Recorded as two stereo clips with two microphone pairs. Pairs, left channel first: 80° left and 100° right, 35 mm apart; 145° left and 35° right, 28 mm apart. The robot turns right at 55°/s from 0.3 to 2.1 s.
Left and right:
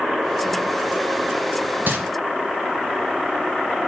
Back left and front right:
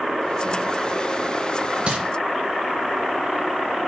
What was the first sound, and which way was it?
Crumpling, 85° right.